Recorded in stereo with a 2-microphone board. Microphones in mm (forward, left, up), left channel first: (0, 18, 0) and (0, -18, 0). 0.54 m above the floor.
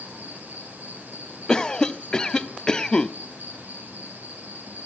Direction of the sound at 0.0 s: 65° right (ahead or behind).